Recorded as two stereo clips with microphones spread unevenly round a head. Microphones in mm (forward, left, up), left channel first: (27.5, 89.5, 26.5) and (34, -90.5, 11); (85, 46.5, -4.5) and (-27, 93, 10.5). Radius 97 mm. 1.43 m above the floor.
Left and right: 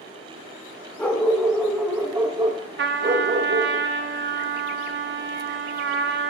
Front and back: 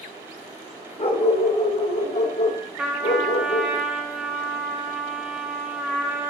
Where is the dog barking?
15° left, 1.8 m; by 3.8 s 65° right, 1.5 m.